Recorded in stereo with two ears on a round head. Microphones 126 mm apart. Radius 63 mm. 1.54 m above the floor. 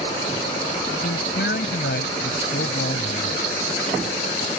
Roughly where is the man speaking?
Left.